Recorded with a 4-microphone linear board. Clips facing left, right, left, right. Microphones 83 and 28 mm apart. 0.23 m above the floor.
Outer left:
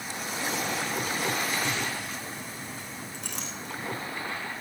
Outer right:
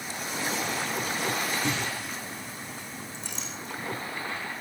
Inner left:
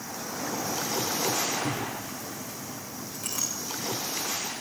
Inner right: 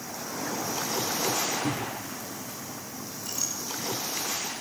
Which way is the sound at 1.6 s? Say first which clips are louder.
Outer right 1 dB, even; 45° right (ahead or behind).